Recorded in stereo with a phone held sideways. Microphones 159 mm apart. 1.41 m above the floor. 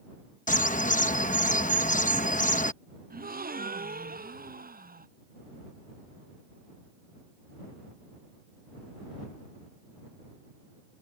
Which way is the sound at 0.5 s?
55° left (ahead or behind).